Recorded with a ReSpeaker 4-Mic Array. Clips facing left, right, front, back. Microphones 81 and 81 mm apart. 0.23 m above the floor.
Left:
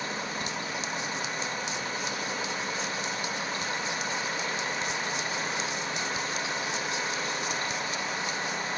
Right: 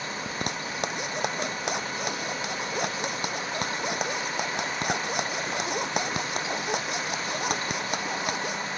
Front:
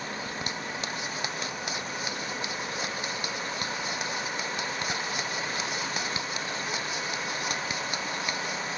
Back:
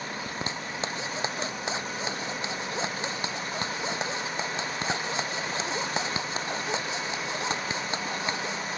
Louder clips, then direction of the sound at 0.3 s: Right 2 dB, back 1 dB; 120° right.